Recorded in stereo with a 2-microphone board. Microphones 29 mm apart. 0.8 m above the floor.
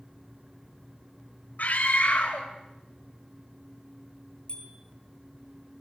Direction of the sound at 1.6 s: 60° left (ahead or behind).